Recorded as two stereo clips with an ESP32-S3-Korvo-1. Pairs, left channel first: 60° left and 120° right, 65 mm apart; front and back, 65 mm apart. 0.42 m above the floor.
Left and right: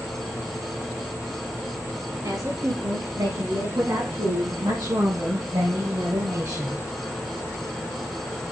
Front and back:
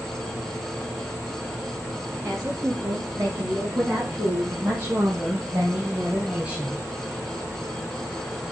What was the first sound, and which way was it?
A woman speaking, 135° right.